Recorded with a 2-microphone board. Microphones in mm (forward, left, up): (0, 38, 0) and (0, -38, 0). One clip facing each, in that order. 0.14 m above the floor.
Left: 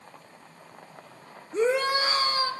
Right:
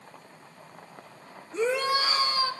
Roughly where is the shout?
Left.